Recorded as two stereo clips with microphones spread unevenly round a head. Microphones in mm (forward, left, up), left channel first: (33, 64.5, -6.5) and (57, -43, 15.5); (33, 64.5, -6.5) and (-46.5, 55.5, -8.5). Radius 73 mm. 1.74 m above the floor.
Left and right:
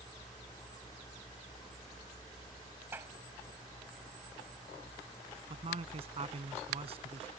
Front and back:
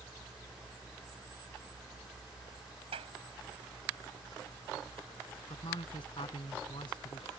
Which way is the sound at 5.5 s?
50° right.